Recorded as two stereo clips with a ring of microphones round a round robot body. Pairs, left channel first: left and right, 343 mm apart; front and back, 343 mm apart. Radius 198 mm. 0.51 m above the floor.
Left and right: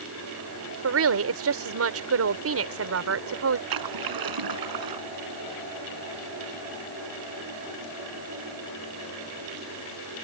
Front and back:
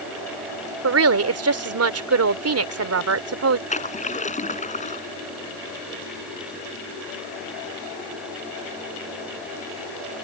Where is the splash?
70° right.